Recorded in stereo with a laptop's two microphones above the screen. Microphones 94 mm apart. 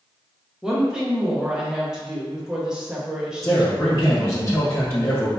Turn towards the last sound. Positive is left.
turn(degrees=30)  # may be behind; listen again after turning